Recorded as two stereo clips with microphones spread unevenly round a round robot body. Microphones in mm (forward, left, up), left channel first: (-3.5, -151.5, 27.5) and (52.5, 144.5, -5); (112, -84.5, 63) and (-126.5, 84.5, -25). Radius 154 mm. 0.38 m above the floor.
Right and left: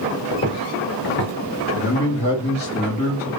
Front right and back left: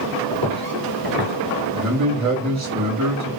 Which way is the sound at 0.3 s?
Straight behind.